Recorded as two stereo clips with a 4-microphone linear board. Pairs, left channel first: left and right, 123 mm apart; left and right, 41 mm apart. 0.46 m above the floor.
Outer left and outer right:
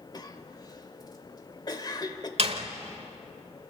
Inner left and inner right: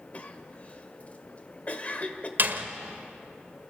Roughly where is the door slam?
Right.